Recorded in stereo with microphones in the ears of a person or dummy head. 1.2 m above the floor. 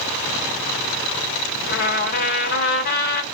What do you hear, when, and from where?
1.7 s a trumpet: 35° left (ahead or behind), 1.2 m